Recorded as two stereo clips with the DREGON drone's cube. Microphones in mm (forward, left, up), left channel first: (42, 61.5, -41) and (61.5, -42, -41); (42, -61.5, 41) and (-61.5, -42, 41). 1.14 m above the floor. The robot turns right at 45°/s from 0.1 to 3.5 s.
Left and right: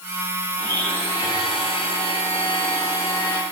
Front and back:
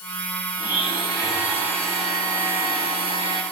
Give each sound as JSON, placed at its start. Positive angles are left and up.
{"t": 0.6, "sound": "a blender", "azimuth_deg": 15, "distance_m": 9.0}